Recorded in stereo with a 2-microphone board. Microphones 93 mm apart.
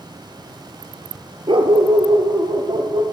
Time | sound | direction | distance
1.5 | a dog barking | 65° right (ahead or behind) | 0.7 m